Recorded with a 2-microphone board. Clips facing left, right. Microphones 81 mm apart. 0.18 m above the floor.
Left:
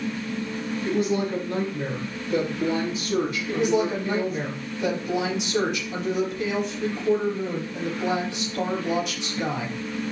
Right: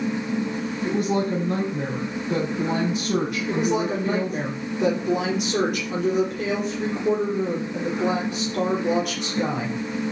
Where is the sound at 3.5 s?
50° right (ahead or behind), 4 m.